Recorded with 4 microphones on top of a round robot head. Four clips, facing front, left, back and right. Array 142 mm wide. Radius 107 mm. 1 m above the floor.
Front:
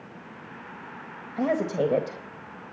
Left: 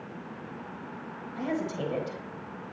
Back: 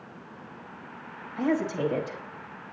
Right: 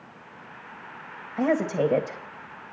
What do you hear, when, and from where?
1.4 s a woman speaking: 45° right, 1.6 m